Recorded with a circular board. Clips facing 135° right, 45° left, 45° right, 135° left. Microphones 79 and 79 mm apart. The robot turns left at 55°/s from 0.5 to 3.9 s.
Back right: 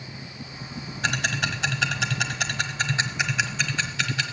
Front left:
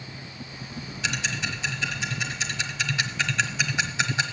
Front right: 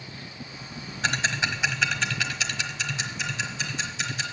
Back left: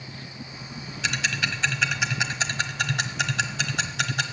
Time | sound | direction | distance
1.0 | ticking | 90° right | 1.1 m